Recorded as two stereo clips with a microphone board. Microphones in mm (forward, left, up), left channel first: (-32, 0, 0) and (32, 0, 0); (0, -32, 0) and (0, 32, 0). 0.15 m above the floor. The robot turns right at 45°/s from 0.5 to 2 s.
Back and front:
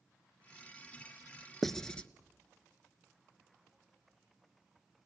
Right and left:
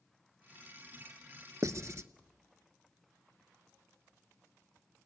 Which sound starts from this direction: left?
Writing, at 1.6 s.